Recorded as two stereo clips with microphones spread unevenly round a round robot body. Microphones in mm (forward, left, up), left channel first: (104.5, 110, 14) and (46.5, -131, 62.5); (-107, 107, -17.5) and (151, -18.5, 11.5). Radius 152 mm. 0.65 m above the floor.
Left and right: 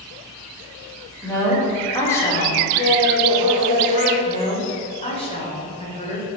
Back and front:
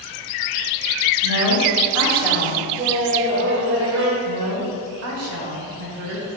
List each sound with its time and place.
1.2 s a woman speaking: 5° left, 2.5 m
2.8 s laughter: 25° left, 1.9 m
4.2 s a woman speaking: 10° left, 2.5 m